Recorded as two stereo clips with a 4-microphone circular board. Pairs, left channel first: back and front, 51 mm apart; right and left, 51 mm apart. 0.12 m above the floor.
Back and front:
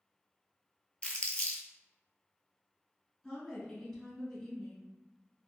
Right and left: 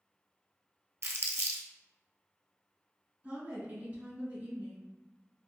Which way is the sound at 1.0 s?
115° left.